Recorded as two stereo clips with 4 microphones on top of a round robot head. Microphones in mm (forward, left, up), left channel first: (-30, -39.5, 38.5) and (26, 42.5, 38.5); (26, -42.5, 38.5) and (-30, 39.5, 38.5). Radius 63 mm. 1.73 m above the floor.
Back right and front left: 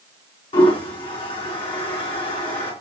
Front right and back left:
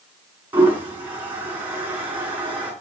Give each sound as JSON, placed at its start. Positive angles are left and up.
{"t": 0.5, "sound": "a toilet flushing", "azimuth_deg": -165, "distance_m": 5.0}